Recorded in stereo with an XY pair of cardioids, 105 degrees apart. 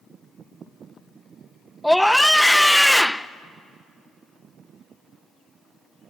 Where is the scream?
5° left, 0.7 m.